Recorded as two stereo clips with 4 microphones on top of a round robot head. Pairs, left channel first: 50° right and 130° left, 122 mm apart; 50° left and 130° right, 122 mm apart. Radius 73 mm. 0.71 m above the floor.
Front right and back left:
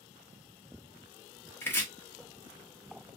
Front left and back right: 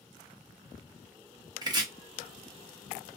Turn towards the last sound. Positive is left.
turn(degrees=-115)